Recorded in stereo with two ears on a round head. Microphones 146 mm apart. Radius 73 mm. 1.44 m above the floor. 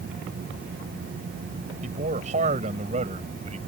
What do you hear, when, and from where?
1.8 s a man speaking: 45° right (ahead or behind)